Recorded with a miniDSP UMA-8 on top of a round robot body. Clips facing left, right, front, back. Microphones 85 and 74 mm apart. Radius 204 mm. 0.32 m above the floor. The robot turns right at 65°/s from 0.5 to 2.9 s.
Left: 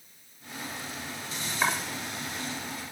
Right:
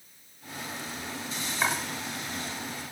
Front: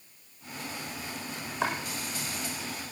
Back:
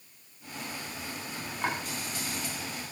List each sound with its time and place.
1.6 s chopping: straight ahead, 8 m; by 1.8 s 10° left, 8 m